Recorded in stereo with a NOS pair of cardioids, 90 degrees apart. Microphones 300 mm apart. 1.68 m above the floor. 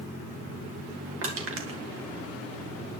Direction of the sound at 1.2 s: 45° right.